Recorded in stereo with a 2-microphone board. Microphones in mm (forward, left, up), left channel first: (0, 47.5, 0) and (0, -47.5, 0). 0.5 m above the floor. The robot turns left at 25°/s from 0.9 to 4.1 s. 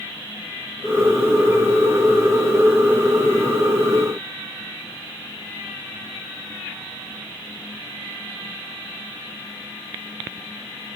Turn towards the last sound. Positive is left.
No sound to turn to.